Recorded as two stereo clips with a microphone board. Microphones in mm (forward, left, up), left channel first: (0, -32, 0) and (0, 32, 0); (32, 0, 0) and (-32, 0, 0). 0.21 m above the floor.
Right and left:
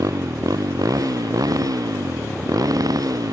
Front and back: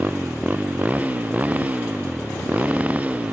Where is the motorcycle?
115° left; by 3.3 s 110° left.